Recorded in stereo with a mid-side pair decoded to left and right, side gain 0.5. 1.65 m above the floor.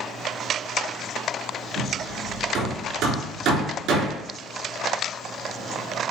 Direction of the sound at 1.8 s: 70° right.